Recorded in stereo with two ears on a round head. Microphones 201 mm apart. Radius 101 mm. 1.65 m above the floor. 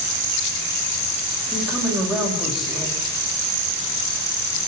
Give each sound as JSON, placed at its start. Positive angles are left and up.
{"t": 1.5, "sound": "a woman speaking", "side_deg": 0, "distance_m": 6.5}